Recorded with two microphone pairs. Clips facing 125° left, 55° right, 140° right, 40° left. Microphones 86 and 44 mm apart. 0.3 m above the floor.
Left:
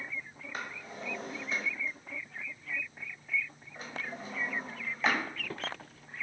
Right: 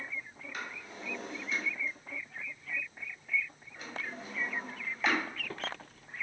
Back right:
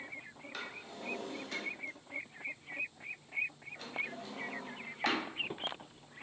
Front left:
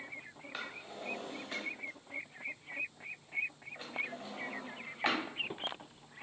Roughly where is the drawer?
Left.